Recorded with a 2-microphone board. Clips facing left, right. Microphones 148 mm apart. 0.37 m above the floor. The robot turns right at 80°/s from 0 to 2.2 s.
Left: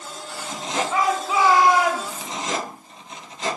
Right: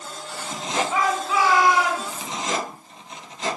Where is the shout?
5° right, 1.7 m; by 2.3 s 95° left, 1.7 m.